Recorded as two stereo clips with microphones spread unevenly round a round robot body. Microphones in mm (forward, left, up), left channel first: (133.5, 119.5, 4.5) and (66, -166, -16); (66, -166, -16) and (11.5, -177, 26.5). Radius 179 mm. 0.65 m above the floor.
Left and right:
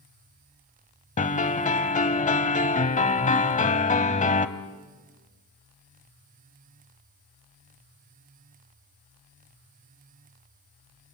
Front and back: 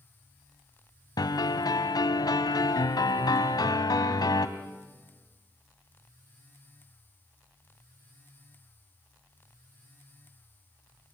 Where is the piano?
15° left, 1.4 m.